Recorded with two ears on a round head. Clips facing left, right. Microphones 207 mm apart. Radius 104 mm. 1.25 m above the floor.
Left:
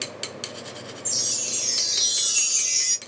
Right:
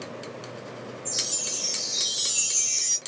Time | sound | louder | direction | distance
1.1 | a chime | even | 80° left | 1.0 m